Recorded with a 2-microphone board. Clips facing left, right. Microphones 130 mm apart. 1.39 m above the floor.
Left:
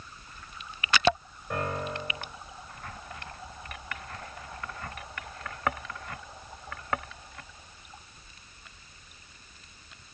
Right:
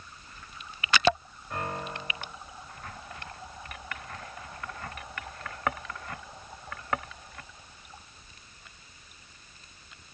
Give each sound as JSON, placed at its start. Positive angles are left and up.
{"t": 1.5, "sound": "a piano", "side_deg": 70, "distance_m": 7.0}